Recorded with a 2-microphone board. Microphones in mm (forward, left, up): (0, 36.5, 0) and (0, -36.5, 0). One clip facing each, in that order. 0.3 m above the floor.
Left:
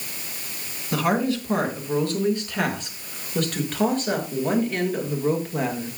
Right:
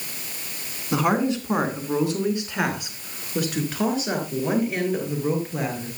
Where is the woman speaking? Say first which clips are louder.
Right 1 dB; 20° right (ahead or behind), 3.5 m; by 6.0 s centre (ahead or behind), 6 m.